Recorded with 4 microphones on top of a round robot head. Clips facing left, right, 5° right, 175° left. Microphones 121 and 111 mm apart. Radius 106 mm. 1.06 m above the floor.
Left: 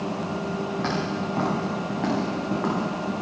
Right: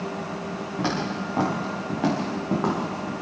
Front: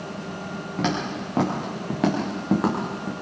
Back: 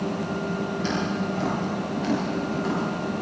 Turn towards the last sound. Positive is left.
turn(degrees=-10)